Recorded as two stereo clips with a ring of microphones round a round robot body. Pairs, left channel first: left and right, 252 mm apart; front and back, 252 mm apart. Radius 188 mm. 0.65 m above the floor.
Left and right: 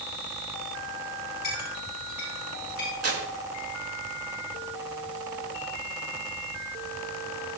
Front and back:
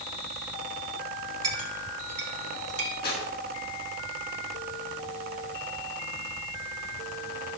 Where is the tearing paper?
65° right, 3 m.